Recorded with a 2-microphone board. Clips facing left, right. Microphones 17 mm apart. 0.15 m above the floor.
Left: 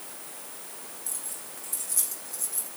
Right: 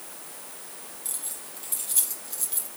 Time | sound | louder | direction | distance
1.1 | keys jangling | right 2 dB | 75° right (ahead or behind) | 4 m